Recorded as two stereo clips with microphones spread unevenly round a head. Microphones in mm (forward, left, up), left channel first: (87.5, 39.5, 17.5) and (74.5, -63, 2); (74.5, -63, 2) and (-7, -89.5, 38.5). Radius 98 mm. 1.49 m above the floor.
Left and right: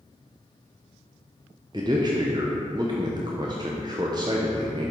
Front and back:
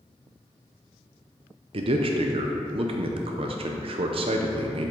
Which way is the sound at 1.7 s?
170° right.